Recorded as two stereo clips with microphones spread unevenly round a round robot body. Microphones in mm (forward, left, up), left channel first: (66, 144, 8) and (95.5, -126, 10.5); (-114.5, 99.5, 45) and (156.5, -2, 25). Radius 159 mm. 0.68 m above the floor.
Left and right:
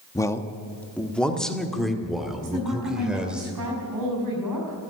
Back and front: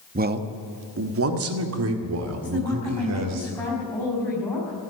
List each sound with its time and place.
0.1 s a man speaking: 25° left, 1.1 m; by 3.4 s 5° left, 3 m
2.4 s a woman speaking: 115° right, 5 m